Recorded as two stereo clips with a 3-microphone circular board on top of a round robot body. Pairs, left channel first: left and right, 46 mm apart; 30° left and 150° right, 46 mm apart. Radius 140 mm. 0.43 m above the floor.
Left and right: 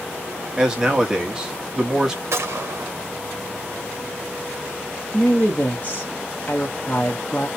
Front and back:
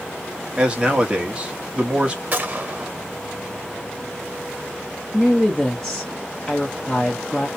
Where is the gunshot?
95° right, 1.3 m.